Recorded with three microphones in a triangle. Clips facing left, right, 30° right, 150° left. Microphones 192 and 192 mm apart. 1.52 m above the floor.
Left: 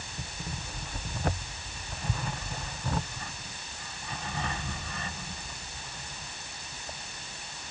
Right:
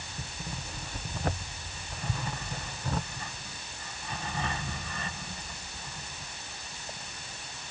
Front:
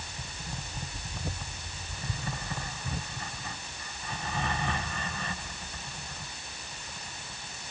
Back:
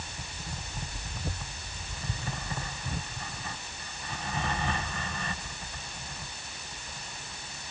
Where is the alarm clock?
No alarm clock in this recording.